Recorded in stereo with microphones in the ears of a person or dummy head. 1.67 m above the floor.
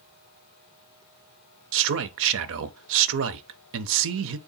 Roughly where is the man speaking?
Right.